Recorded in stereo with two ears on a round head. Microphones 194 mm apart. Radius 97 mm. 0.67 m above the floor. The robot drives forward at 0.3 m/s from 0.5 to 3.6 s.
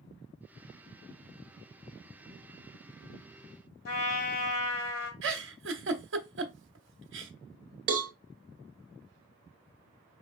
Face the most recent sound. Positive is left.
turn(degrees=-40)  # may be behind; listen again after turning